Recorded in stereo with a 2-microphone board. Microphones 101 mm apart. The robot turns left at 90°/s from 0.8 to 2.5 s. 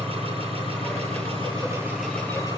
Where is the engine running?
65° right, 10 m; by 2.6 s 140° left, 10 m.